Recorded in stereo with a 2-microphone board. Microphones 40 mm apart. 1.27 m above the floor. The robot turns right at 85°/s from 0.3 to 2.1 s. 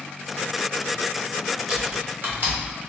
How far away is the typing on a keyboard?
About 0.8 m.